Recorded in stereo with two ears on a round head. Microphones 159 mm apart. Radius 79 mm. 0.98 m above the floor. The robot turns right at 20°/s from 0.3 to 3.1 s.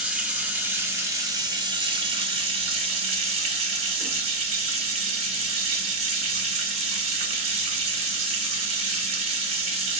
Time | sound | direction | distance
0.0 | running water | 165° right | 0.9 m